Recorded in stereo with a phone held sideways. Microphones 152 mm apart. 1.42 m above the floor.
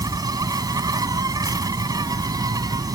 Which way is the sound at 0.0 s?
25° right (ahead or behind).